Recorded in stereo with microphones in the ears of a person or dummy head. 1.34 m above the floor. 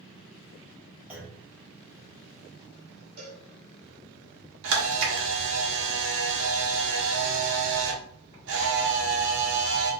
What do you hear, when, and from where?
1.1 s a clunk: 10° right (ahead or behind), 0.8 m
3.2 s a cowbell: 65° right (ahead or behind), 1.3 m
4.6 s a camera shutter: 60° right (ahead or behind), 0.9 m